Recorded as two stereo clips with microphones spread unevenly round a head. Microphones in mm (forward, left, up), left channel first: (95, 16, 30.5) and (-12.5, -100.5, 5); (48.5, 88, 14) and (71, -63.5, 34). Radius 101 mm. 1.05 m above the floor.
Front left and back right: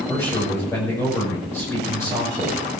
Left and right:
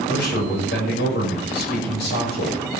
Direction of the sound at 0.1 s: 125° left.